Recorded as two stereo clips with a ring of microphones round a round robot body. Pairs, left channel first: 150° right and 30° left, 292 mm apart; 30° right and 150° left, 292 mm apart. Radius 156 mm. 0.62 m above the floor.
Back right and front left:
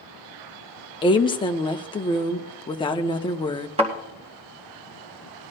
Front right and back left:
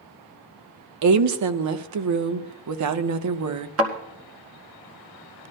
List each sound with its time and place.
1.0 s a woman speaking: 135° left, 0.9 m
3.8 s a thud: 100° left, 2 m